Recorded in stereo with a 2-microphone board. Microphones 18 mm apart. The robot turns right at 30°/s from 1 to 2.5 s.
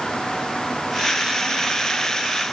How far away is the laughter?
No laughter in this recording.